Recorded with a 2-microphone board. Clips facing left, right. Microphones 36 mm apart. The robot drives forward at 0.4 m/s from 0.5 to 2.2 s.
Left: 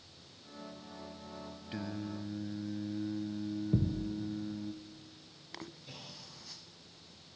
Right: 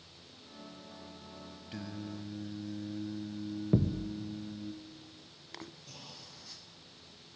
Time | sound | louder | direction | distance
1.7 | singing | left 2 dB | 10° left (ahead or behind) | 0.7 m
3.7 | a thud | right 4 dB | 40° right (ahead or behind) | 1.4 m
5.9 | a clunk | left 1 dB | 30° left (ahead or behind) | 5 m